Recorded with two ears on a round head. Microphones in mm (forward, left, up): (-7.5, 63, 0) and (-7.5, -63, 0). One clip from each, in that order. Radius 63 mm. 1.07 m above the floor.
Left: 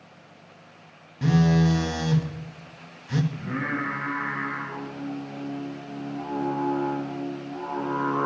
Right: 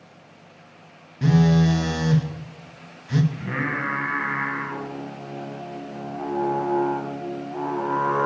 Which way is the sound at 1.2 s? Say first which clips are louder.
Right 2 dB; 5° left (ahead or behind).